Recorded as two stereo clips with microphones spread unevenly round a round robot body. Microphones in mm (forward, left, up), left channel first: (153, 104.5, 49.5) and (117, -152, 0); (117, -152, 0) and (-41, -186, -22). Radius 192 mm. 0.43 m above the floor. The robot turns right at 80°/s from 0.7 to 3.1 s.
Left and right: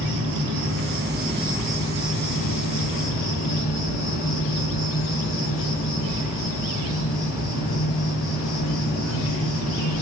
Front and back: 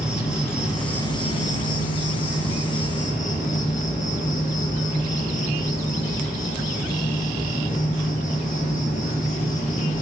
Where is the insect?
85° right, 8 m; by 10.0 s 110° left, 8 m.